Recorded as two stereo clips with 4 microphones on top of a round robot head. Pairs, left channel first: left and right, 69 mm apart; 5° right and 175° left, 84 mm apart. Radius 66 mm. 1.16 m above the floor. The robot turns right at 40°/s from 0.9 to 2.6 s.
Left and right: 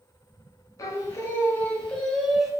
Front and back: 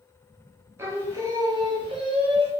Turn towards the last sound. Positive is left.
turn(degrees=-170)